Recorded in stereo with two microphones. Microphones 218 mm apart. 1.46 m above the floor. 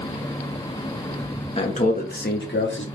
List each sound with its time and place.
1.6 s a man speaking: 30° left (ahead or behind), 1.3 m; by 2.9 s 65° left (ahead or behind), 1.3 m